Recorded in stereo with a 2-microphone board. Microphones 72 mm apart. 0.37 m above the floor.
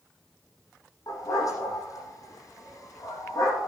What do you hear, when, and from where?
1.1 s a dog barking: 55° left (ahead or behind), 8 m